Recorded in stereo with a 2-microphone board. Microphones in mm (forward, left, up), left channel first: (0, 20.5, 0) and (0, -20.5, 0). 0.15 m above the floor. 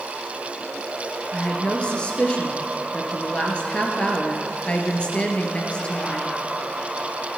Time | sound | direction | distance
1.3 | a woman speaking | 25° left (ahead or behind) | 2.5 m